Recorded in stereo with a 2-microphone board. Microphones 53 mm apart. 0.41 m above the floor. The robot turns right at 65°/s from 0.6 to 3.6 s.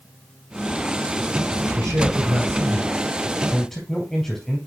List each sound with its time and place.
1.8 s a man speaking: 115° right, 3 m; by 4.7 s 5° left, 3 m